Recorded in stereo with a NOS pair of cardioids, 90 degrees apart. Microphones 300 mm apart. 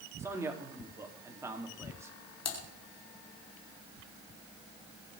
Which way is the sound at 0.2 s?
10° right.